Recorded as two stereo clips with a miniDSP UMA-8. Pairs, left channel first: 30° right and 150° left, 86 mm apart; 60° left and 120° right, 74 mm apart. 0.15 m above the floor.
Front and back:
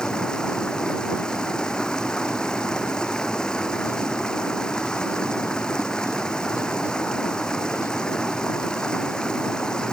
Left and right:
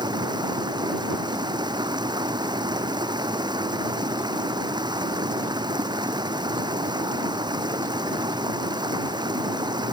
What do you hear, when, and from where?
0.0 s running water: 110° right